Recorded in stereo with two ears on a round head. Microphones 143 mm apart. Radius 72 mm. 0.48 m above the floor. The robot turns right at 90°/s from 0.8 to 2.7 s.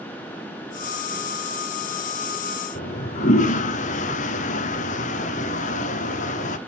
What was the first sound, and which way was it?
A toilet flushing, 50° left (ahead or behind).